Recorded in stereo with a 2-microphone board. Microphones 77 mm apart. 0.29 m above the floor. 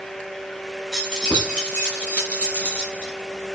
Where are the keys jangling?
5° left (ahead or behind), 1.6 m; by 3.1 s 30° left (ahead or behind), 2.5 m.